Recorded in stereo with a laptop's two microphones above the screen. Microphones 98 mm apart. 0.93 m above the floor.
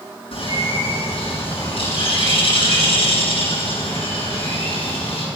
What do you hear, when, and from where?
0.3 s a bird: 90° left, 5.5 m